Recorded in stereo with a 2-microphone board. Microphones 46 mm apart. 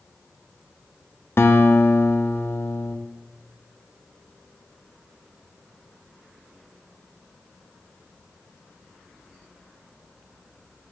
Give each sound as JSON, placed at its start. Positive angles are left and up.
{"t": 1.4, "sound": "a guitar", "side_deg": 60, "distance_m": 0.7}